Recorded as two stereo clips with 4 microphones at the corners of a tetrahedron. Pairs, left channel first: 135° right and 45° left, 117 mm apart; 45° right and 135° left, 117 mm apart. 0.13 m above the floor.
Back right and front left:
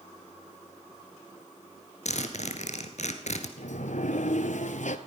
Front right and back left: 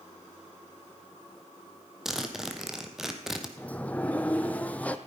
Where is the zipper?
140° right, 1.4 m.